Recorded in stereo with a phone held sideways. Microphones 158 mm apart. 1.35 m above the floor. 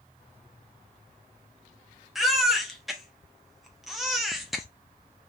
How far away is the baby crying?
About 0.7 m.